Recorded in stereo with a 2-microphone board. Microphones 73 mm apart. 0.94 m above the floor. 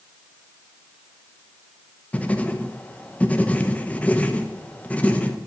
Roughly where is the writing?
Centre.